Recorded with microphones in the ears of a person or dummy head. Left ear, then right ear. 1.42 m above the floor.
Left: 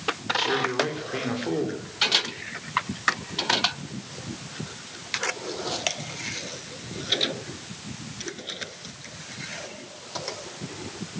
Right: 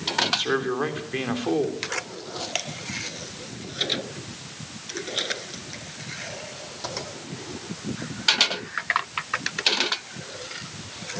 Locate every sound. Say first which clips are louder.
0.2 s a man speaking: left 2 dB; 20° right (ahead or behind), 3.5 m